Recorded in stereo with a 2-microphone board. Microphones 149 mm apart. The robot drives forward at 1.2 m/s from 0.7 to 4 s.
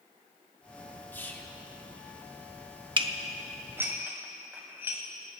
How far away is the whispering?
About 0.8 m.